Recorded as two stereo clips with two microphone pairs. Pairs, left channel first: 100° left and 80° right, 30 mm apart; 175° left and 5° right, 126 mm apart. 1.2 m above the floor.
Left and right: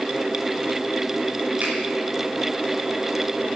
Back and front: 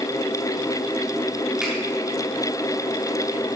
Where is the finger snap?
90° right, 3.5 m.